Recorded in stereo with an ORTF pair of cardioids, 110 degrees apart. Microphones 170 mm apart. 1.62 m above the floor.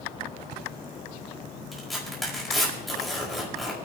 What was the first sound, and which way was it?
Tearing paper, straight ahead.